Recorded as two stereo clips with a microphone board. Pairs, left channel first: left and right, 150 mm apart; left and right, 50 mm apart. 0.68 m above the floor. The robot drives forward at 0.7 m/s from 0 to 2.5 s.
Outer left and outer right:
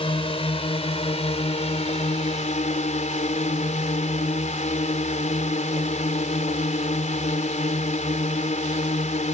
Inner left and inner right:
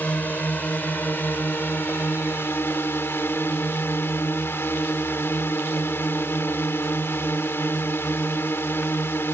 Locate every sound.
0.0 s a drone: 35° left (ahead or behind); by 9.3 s 50° left (ahead or behind)